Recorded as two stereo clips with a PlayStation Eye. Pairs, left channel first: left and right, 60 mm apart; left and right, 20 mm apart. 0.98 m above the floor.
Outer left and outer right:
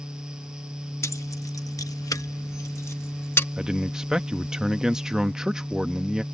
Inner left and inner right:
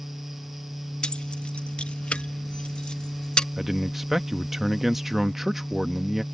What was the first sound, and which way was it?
Keys jangling, 55° left (ahead or behind).